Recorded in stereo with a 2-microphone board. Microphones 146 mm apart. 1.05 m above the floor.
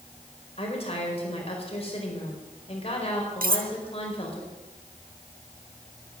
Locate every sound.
0.6 s a woman speaking: 40° left (ahead or behind), 4 m
3.4 s cutlery clinking: 80° right, 0.8 m